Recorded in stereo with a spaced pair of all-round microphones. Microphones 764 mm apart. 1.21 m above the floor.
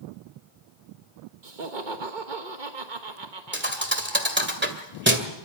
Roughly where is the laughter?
Right.